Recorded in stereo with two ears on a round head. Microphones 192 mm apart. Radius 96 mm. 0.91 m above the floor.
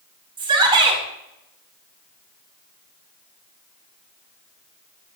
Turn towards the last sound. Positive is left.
turn(degrees=-25)  # may be behind; listen again after turning